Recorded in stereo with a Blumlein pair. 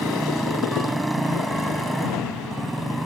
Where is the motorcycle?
5° right.